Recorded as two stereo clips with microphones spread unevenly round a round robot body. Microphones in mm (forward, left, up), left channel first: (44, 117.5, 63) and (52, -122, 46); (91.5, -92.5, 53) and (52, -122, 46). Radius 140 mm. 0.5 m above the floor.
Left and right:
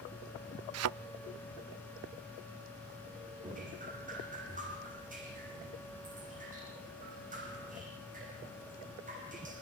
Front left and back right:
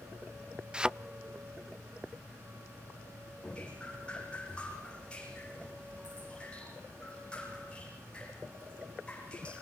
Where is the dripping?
30° right, 10 m.